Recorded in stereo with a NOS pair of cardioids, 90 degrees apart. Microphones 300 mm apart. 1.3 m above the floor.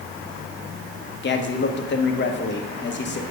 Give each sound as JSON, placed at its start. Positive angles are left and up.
{"t": 1.2, "sound": "a man speaking", "azimuth_deg": 35, "distance_m": 1.1}